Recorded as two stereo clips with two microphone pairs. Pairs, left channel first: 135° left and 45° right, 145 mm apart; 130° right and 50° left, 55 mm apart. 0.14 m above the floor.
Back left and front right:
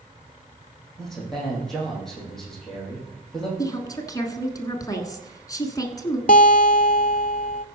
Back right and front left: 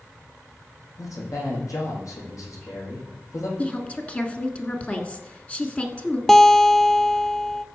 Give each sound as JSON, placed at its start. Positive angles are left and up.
{"t": 1.0, "sound": "a man speaking", "azimuth_deg": -140, "distance_m": 5.0}
{"t": 3.6, "sound": "a woman speaking", "azimuth_deg": 180, "distance_m": 1.4}
{"t": 6.3, "sound": "a guitar", "azimuth_deg": 145, "distance_m": 0.5}